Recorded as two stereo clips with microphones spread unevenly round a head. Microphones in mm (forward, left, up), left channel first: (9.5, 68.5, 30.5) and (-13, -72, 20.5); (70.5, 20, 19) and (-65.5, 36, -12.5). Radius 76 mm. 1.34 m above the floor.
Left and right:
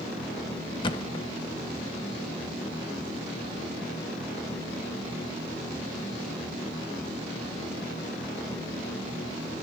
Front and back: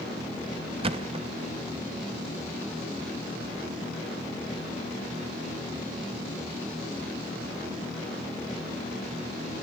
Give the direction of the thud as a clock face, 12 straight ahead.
8 o'clock.